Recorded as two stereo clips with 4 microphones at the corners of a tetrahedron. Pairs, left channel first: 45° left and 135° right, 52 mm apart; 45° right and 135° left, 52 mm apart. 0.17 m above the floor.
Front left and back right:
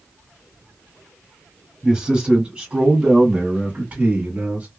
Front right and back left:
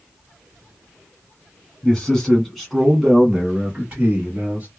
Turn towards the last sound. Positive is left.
turn(degrees=-175)